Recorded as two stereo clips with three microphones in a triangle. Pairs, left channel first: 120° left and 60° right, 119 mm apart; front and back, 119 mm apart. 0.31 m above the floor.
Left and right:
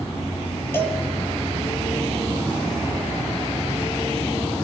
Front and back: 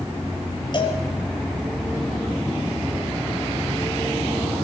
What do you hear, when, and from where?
0.7 s a cowbell: 50° left, 5.5 m